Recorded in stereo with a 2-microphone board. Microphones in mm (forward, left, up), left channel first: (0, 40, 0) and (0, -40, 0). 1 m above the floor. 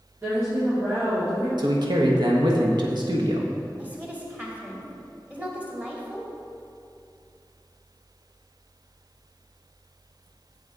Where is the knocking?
I don't hear knocking.